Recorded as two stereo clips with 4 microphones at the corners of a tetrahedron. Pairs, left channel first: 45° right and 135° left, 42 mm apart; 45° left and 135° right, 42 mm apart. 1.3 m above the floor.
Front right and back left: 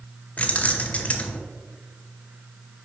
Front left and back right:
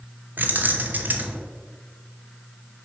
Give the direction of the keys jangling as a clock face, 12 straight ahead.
3 o'clock.